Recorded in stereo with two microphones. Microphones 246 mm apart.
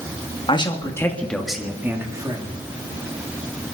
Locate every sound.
0.5 s a man speaking: 20° left (ahead or behind), 1.9 m; by 2.6 s 20° right (ahead or behind), 2.5 m